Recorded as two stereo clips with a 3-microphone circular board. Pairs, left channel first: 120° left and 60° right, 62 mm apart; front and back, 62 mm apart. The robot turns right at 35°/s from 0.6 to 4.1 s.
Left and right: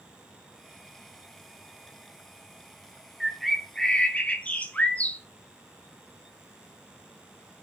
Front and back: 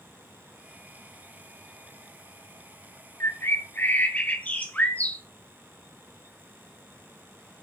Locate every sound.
3.2 s a bird: 25° left, 1.3 m; by 5.2 s 60° left, 1.3 m